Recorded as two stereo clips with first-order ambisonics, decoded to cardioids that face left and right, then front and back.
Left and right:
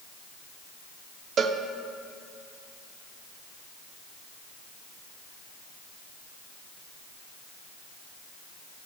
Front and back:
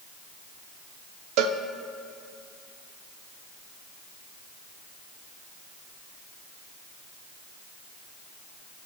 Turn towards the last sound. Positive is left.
turn(degrees=-150)